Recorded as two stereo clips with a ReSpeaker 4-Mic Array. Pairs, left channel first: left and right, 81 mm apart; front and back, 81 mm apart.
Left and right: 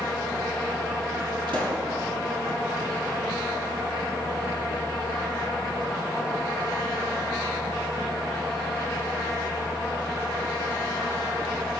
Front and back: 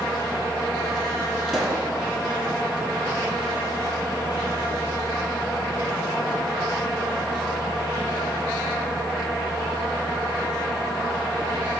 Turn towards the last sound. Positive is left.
turn(degrees=-95)